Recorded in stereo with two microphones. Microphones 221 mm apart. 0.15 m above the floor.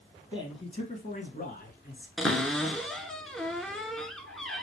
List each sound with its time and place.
0.3 s a man speaking: 20° left (ahead or behind), 1.1 m; by 2.1 s 45° left (ahead or behind), 1.6 m
2.2 s a cupboard door: centre (ahead or behind), 0.6 m